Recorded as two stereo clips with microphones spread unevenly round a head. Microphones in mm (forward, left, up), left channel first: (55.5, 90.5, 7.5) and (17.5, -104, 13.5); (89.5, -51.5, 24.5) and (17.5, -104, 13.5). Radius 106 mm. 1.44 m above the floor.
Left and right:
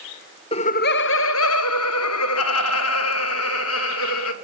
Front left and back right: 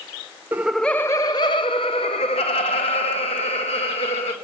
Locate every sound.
0.5 s laughter: 145° left, 0.5 m; by 4.3 s 70° left, 2.5 m